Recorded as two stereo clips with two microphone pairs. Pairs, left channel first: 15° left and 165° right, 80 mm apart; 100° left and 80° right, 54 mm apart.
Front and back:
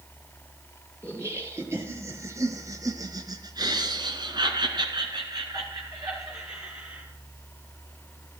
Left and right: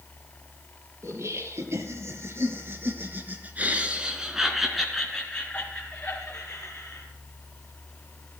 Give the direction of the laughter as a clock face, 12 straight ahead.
3 o'clock.